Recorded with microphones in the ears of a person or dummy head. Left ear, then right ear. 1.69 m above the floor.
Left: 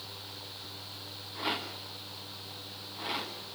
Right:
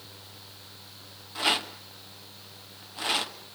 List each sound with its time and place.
1.4 s a rattle: 35° right (ahead or behind), 1.4 m